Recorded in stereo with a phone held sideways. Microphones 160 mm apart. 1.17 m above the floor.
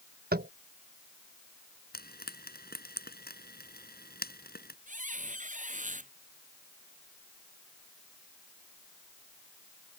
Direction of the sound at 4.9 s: 55° right (ahead or behind).